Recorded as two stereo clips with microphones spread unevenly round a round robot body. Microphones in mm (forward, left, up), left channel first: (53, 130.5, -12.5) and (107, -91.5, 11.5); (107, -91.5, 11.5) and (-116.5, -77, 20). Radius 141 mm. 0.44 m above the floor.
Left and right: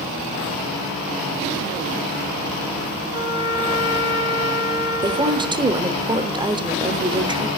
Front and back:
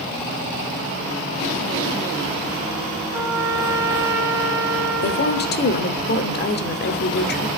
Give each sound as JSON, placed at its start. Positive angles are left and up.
{"t": 3.1, "sound": "a trumpet", "azimuth_deg": -105, "distance_m": 3.0}
{"t": 5.0, "sound": "a woman speaking", "azimuth_deg": -5, "distance_m": 1.1}